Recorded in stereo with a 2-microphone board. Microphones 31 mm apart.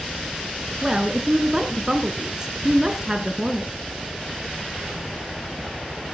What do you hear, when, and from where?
0.8 s a woman speaking: 25° right (ahead or behind), 1.4 m